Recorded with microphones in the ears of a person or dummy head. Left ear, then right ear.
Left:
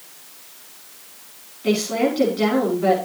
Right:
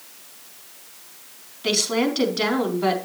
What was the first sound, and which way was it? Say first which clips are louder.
A woman speaking: left 1 dB; 35° right (ahead or behind).